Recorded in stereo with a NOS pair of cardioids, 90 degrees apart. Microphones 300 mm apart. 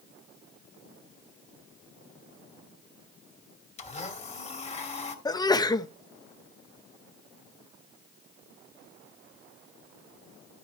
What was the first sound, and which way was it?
A blender, 25° left.